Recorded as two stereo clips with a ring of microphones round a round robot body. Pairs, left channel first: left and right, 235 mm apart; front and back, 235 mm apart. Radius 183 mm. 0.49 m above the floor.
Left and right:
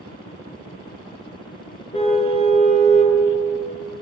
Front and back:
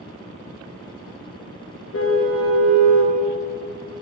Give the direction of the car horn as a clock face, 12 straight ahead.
11 o'clock.